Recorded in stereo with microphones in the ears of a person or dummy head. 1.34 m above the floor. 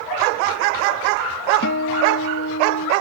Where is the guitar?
60° left (ahead or behind).